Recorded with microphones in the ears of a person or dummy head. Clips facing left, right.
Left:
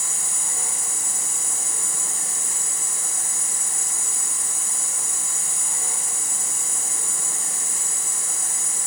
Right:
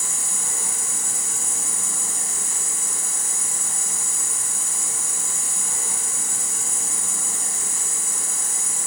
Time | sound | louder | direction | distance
0.0 | an insect | right 1 dB | 75° right (ahead or behind) | 5 m